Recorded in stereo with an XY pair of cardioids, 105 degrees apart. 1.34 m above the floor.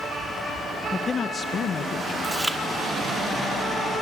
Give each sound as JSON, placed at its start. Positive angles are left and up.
{"t": 0.9, "sound": "a man speaking", "azimuth_deg": 20, "distance_m": 1.2}
{"t": 2.2, "sound": "chewing", "azimuth_deg": -10, "distance_m": 2.5}